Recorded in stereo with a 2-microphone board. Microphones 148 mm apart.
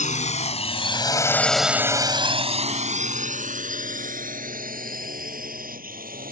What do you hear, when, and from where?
0.0 s a drone: 60° left (ahead or behind); by 6.3 s 80° right